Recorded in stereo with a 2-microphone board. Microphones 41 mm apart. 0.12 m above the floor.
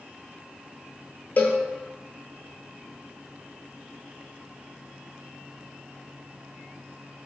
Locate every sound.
1.4 s a cowbell: 50° left (ahead or behind), 0.6 m